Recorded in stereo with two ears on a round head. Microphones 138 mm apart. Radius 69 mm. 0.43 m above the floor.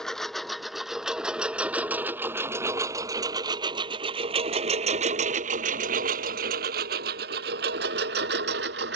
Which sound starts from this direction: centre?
A lawn mower, at 0.0 s.